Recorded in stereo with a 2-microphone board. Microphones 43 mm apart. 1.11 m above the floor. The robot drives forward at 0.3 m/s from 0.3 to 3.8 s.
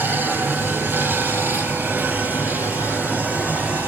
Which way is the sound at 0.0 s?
50° right (ahead or behind).